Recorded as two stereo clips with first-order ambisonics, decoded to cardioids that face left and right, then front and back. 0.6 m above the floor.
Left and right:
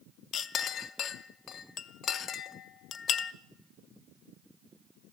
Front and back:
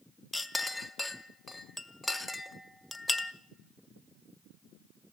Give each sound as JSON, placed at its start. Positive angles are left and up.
{"t": 0.3, "sound": "a clink", "azimuth_deg": 80, "distance_m": 0.5}